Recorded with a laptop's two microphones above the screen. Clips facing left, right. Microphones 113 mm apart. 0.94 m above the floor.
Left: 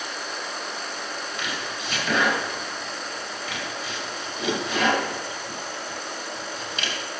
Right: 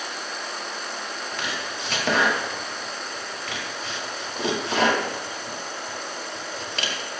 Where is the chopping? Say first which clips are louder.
Right 1 dB; 70° right (ahead or behind), 1.9 m.